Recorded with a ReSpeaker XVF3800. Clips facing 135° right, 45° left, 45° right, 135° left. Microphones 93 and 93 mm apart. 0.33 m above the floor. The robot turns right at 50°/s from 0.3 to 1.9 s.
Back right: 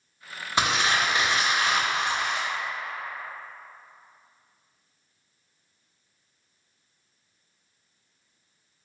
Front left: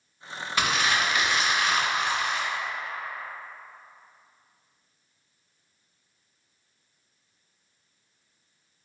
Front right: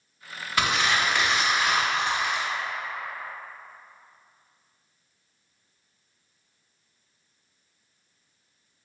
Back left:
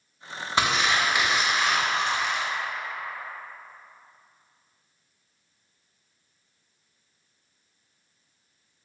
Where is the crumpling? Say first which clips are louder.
Back right 1 dB, back left 1 dB; straight behind, 0.7 m; by 2.5 s 115° right, 0.7 m.